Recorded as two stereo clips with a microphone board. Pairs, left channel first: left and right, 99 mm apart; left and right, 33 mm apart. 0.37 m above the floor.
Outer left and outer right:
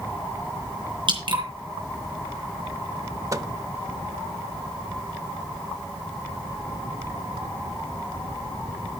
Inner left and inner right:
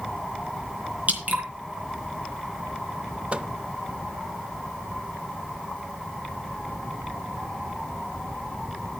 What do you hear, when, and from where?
1.1 s dripping: 55° right (ahead or behind), 3.5 m
3.3 s a microwave: 35° right (ahead or behind), 0.7 m